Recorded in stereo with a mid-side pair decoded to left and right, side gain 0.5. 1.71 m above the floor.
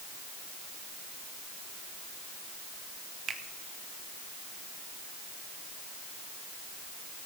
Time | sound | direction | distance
3.3 | a finger snap | 50° right | 1.9 m